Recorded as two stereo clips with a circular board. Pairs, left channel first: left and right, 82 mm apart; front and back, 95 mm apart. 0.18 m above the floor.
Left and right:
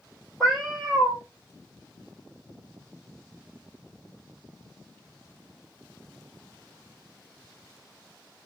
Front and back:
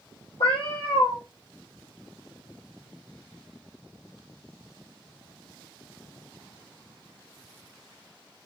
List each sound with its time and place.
0.4 s a cat meowing: straight ahead, 1.5 m